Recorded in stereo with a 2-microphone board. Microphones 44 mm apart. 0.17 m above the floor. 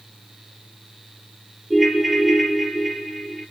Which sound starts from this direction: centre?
A ringtone, at 1.7 s.